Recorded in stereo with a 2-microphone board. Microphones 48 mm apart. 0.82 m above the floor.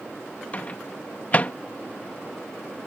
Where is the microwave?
35° left (ahead or behind).